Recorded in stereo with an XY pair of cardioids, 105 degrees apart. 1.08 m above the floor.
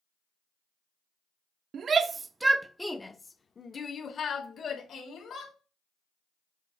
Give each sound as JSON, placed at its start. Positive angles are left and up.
{"t": 1.7, "sound": "a shout", "azimuth_deg": -55, "distance_m": 0.7}